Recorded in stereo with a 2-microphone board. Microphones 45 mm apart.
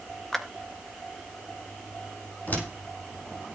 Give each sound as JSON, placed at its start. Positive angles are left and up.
{"t": 0.3, "sound": "a clap", "side_deg": 10, "distance_m": 2.0}
{"t": 2.5, "sound": "a door slam", "side_deg": 40, "distance_m": 6.5}